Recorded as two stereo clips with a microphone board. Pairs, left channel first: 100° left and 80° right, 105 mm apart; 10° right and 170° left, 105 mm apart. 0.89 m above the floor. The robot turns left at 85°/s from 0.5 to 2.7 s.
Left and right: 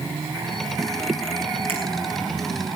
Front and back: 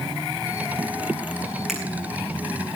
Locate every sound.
1.7 s a finger snap: 105° right, 9 m; by 1.8 s 115° right, 9 m